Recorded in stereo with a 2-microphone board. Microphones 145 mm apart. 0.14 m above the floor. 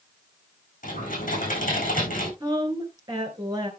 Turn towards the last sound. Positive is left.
turn(degrees=-30)  # may be behind; listen again after turning